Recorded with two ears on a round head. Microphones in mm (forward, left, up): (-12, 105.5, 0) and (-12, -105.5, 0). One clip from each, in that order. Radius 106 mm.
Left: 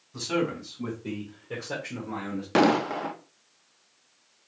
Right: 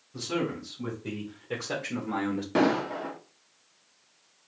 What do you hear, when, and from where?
0.1 s a man speaking: 35° left (ahead or behind), 1.5 m; by 2.5 s 65° right (ahead or behind), 1.4 m
2.5 s an explosion: 40° left (ahead or behind), 0.5 m